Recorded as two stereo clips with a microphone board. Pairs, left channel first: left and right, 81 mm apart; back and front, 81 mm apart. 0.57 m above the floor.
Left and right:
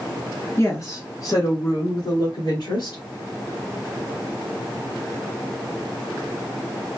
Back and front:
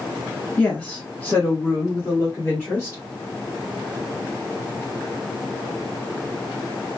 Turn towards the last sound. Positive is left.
turn(degrees=115)